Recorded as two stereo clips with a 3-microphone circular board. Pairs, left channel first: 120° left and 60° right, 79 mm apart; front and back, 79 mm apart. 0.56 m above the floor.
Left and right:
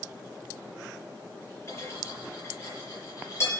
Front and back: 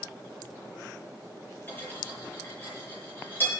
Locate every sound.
1.7 s cutlery clinking: 65° left, 7 m